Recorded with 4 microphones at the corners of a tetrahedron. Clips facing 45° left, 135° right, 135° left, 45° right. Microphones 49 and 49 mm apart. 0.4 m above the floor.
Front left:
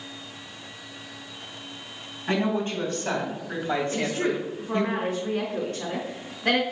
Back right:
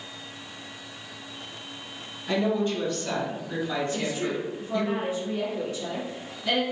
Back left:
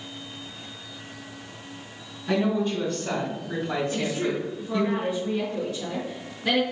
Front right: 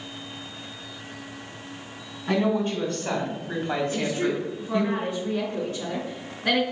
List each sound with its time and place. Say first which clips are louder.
2.3 s a woman speaking: even, front right 1 dB; 5° right, 3.5 m; by 4.9 s 10° left, 2 m
3.9 s a woman speaking: front left 3 dB, front right 1 dB; 10° left, 3.5 m